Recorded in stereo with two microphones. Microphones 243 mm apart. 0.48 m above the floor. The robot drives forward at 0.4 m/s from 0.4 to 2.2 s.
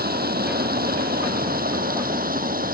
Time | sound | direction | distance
0.0 | running water | 40° right (ahead or behind) | ?